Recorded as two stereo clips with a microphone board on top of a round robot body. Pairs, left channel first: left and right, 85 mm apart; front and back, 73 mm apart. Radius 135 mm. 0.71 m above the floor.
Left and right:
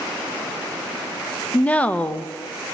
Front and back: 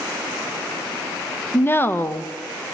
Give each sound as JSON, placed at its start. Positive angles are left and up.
{"t": 1.5, "sound": "a woman speaking", "azimuth_deg": 30, "distance_m": 0.8}